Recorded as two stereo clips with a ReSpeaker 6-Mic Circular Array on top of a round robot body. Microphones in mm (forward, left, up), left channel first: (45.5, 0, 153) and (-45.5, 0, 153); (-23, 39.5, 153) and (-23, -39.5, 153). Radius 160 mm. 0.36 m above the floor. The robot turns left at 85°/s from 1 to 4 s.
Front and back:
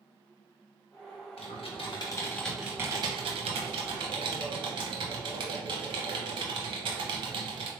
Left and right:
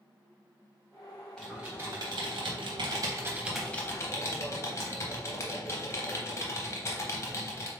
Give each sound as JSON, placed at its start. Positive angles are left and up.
{"t": 1.4, "sound": "typing on a keyboard", "azimuth_deg": 10, "distance_m": 0.5}